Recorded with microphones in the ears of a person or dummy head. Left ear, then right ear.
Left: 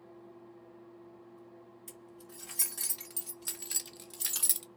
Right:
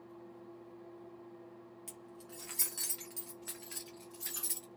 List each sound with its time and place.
1.9 s keys jangling: 15° right (ahead or behind), 1.0 m; by 4.7 s 50° left (ahead or behind), 0.8 m